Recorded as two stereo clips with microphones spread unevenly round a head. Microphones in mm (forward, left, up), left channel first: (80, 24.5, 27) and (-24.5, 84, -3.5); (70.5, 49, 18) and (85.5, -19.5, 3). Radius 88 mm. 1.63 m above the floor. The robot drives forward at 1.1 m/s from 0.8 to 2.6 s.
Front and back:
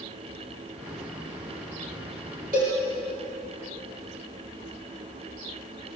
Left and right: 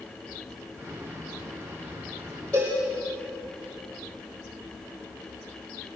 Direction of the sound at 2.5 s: 175° right.